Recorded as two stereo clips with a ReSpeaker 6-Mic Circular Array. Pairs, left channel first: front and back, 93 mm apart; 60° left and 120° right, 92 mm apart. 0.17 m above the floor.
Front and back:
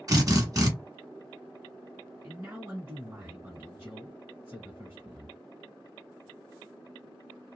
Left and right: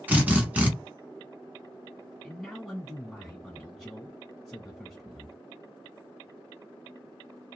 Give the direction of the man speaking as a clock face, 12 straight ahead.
7 o'clock.